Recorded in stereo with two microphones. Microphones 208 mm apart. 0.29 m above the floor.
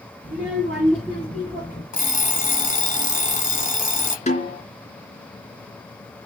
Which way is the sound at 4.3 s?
35° left (ahead or behind).